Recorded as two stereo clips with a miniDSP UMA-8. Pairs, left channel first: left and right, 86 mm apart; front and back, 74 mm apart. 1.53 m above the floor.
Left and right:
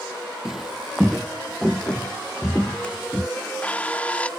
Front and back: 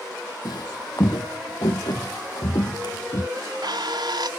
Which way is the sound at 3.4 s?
165° left.